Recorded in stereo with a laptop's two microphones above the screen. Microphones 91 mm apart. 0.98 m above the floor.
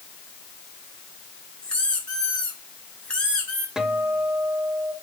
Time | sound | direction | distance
1.6 | a squeak | 10° left (ahead or behind) | 2 m
3.8 | a guitar | 5° right (ahead or behind) | 1.2 m